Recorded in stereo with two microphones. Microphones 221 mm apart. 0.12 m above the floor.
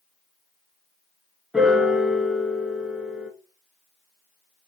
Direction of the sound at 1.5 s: 5° right (ahead or behind).